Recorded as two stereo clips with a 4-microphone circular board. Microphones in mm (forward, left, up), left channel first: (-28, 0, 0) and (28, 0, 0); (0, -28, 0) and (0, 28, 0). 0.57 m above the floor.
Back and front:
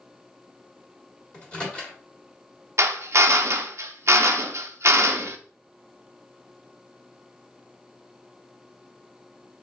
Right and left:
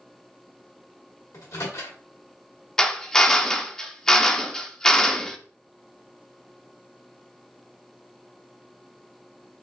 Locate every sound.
1.3 s a microwave: 105° right, 1.8 m
2.8 s a drill: 15° right, 0.5 m